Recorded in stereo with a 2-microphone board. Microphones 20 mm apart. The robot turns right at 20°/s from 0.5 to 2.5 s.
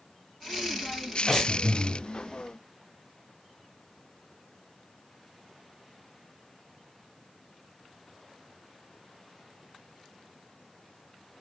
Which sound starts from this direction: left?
Breathing, at 1.3 s.